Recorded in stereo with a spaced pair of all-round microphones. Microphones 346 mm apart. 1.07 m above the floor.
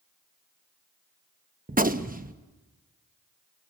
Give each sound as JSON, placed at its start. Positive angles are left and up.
{"t": 1.7, "sound": "a gunshot", "side_deg": -25, "distance_m": 0.9}